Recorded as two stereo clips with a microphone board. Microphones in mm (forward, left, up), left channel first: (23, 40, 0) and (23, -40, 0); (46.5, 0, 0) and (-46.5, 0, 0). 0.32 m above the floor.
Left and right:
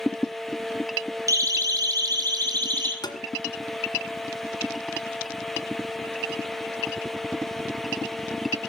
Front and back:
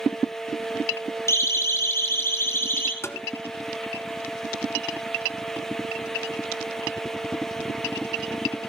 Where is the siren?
55° right, 3 m; by 2.9 s 60° right, 4.5 m.